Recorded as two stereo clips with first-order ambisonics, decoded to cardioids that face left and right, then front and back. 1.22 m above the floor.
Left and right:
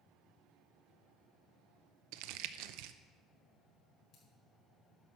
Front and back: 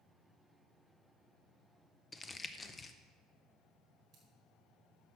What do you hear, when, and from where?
2.1 s crumpling: 75° right, 0.6 m
4.1 s scissors: 130° left, 5.5 m